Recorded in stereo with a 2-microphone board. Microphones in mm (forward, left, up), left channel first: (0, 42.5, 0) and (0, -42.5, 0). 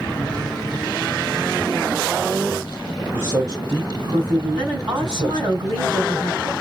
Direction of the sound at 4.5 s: 55° right (ahead or behind).